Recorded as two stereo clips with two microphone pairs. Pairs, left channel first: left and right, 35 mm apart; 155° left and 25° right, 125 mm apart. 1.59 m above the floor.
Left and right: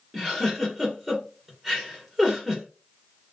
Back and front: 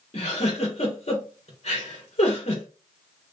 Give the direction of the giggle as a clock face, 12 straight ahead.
6 o'clock.